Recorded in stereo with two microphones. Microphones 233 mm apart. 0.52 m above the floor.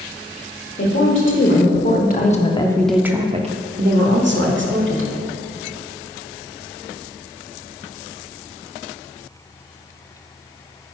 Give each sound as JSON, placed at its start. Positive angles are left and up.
{"t": 0.8, "sound": "a woman speaking", "side_deg": 60, "distance_m": 1.6}